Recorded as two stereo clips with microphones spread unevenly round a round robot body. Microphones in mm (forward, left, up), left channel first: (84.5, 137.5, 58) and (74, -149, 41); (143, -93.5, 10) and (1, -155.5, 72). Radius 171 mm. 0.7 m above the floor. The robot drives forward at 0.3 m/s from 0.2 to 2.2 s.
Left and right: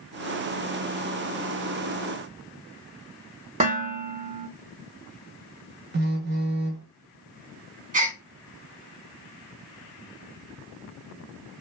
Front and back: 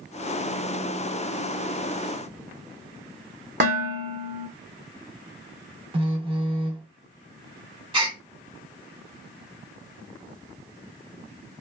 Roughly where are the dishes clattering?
Behind right.